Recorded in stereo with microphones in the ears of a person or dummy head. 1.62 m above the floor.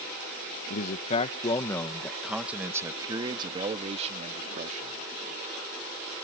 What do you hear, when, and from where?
0.7 s a man speaking: 55° left (ahead or behind); by 5.0 s 35° right (ahead or behind)